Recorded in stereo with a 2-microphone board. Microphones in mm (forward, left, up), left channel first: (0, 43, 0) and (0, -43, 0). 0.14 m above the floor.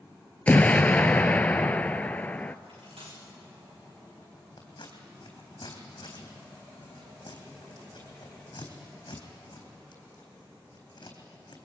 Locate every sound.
0.5 s an explosion: 15° left (ahead or behind), 0.6 m
2.7 s cutlery clinking: 80° right, 8 m
4.6 s scissors: 55° left (ahead or behind), 4 m